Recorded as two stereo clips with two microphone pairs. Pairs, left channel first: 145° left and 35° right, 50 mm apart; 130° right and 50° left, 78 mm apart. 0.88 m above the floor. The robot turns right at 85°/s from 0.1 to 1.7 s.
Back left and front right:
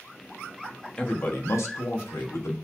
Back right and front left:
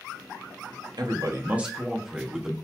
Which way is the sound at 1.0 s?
70° left.